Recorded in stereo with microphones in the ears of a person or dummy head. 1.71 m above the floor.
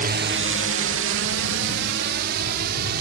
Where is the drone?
40° right (ahead or behind); by 3.0 s 65° right (ahead or behind).